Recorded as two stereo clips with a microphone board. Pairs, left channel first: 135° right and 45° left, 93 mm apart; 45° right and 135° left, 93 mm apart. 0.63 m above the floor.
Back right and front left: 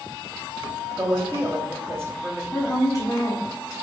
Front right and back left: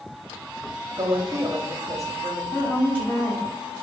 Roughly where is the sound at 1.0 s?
Left.